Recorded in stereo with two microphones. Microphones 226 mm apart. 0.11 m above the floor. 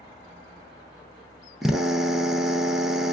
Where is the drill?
Centre (ahead or behind), 0.7 m.